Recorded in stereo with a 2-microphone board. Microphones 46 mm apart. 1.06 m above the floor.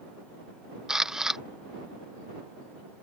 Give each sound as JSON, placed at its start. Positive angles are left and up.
{"t": 0.9, "sound": "a camera shutter", "side_deg": -10}